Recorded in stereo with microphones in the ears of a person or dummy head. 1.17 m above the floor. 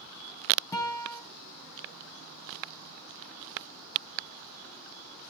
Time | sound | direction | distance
0.7 | a guitar | 20° left (ahead or behind) | 4 m